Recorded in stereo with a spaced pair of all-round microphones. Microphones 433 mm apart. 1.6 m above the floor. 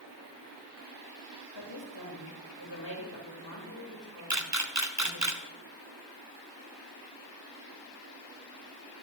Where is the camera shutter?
40° right (ahead or behind), 1.2 m.